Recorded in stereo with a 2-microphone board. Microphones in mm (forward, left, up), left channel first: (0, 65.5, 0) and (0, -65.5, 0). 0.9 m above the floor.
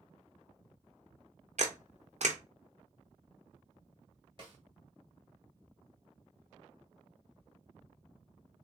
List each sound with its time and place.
1.6 s a camera shutter: 60° right (ahead or behind), 0.5 m
4.4 s a snare drum: 40° right (ahead or behind), 1.1 m